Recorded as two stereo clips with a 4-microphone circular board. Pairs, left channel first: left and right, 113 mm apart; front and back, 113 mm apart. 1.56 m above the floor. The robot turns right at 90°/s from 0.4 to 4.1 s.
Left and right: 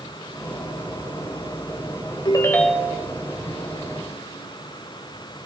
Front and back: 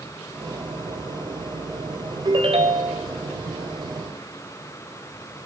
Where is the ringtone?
135° left, 3.5 m; by 3.1 s 150° right, 3.5 m.